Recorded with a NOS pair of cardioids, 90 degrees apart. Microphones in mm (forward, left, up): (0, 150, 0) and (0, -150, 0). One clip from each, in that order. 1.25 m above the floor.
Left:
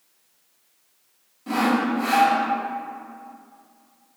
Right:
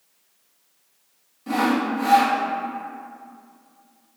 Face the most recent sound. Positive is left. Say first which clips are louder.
# even
turn(degrees=-5)